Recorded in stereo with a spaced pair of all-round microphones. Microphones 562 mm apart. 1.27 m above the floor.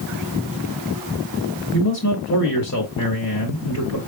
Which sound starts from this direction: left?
A man speaking, at 1.7 s.